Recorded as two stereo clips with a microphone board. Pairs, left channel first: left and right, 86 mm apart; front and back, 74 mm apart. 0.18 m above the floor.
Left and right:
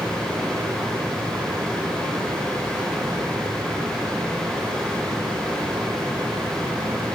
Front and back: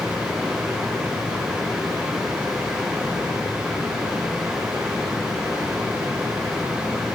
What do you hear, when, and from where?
0.0 s running water: 125° right, 6.5 m